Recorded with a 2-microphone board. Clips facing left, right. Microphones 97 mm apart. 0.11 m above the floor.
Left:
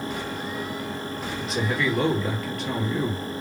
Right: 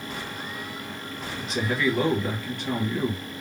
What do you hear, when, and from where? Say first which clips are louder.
1.4 s a man speaking: even; centre (ahead or behind), 2.5 m